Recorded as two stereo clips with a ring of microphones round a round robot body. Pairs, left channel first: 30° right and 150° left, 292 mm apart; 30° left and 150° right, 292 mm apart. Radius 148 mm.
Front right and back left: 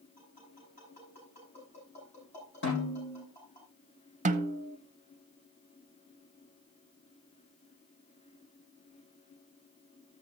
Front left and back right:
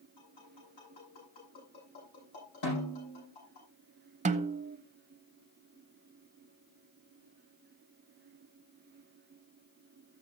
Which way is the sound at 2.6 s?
25° left.